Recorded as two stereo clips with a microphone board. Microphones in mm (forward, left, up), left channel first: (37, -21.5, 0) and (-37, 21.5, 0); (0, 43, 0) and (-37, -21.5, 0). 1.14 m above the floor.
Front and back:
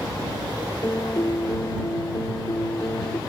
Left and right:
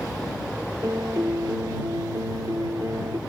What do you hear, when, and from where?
0.8 s a piano: 80° right